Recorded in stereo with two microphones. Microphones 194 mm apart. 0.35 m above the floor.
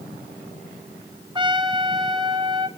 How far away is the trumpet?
About 0.9 m.